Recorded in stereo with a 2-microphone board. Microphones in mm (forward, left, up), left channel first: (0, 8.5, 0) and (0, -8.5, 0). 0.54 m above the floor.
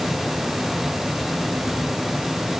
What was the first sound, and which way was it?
Only background noise.